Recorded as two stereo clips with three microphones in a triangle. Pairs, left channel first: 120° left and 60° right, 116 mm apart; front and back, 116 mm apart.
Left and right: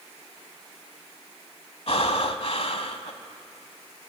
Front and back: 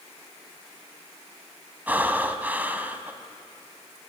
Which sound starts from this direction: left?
Breathing, at 1.9 s.